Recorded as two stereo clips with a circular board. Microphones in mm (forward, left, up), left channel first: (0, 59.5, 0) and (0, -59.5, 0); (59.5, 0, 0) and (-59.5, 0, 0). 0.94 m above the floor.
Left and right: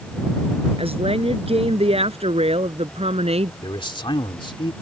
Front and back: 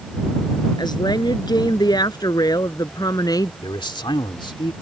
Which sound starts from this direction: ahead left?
A man speaking, at 3.6 s.